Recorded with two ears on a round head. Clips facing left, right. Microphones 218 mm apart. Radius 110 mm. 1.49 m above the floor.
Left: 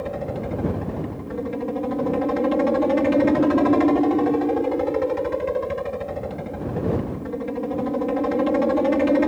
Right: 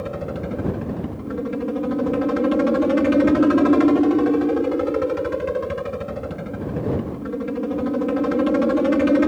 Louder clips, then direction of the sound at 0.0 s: Even; 15° right (ahead or behind).